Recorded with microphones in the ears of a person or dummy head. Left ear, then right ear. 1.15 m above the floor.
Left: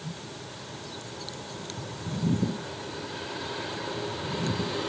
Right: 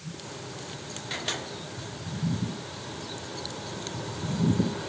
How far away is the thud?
I don't hear a thud.